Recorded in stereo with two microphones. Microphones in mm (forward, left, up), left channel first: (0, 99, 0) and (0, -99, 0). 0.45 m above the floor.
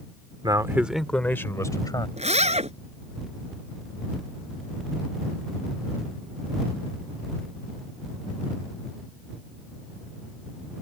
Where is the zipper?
35° right (ahead or behind).